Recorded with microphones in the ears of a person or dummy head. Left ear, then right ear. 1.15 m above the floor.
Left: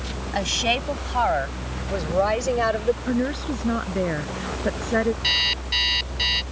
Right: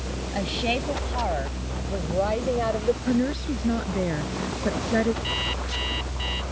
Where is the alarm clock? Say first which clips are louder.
Left 7 dB; 75° left (ahead or behind).